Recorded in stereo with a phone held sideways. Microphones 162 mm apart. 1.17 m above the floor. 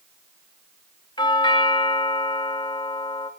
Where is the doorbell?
30° left (ahead or behind), 2.5 m.